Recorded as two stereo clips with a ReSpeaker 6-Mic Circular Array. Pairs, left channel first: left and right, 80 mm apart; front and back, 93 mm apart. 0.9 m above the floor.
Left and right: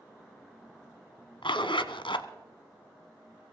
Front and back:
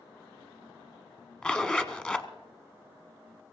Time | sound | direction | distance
1.4 | a zipper | 80° left | 1.1 m